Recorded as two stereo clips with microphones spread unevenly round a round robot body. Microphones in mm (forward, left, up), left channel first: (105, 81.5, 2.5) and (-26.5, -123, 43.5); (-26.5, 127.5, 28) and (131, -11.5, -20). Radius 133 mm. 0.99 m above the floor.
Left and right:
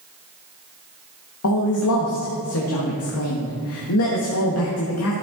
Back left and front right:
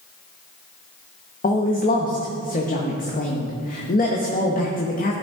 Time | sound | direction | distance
1.4 | a man speaking | 85° left | 1.0 m